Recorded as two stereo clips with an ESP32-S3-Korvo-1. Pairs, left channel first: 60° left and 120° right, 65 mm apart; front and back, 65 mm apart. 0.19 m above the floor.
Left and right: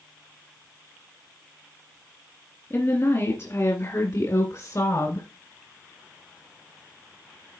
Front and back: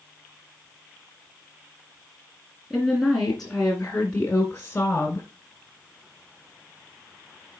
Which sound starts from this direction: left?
A woman speaking, at 2.7 s.